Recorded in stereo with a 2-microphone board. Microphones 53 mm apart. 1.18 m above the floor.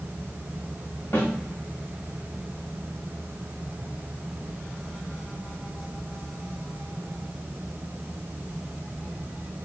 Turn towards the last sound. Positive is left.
turn(degrees=50)  # may be behind; listen again after turning